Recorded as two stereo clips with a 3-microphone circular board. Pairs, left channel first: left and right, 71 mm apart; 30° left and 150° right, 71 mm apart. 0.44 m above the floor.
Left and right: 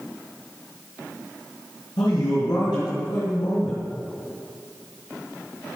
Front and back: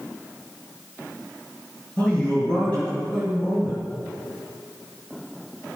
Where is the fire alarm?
No fire alarm in this recording.